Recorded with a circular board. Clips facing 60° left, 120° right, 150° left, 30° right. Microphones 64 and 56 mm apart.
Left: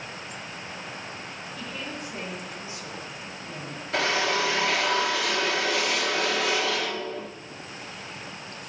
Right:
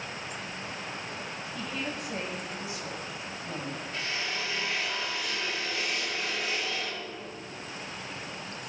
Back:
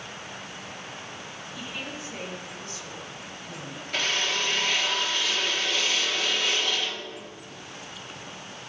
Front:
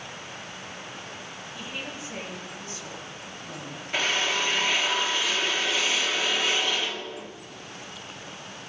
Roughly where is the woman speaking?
Right.